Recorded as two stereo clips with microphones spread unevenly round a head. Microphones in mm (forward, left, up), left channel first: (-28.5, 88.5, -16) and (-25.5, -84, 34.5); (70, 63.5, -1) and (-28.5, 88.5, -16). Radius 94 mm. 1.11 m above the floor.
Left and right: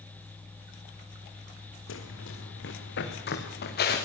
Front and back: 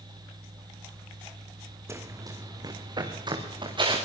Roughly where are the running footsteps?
Left.